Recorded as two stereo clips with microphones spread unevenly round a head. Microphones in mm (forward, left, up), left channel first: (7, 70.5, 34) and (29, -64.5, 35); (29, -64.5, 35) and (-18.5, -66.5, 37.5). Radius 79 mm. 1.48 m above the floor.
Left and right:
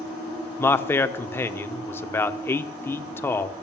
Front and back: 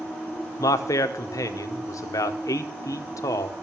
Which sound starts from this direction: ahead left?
A man speaking, at 0.6 s.